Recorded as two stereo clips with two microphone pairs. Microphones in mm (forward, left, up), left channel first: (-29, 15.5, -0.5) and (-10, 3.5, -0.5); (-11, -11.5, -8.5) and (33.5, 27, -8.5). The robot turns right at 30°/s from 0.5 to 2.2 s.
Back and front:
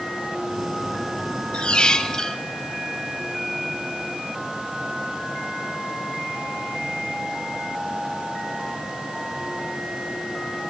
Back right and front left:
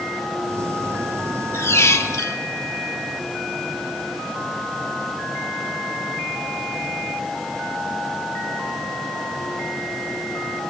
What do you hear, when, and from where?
1.5 s a squeak: 170° right, 0.7 m; by 2.4 s 150° right, 0.7 m